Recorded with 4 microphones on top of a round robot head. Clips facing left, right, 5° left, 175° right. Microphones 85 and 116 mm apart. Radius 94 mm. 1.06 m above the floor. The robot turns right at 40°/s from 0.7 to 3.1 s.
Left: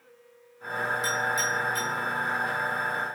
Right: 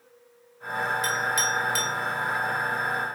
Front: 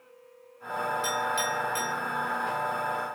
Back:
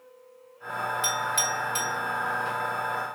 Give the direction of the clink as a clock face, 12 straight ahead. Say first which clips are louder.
Right 1 dB, even; 5 o'clock.